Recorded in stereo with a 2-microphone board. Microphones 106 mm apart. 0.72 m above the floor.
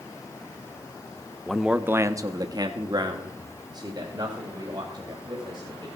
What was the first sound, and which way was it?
A man speaking, 5° left (ahead or behind).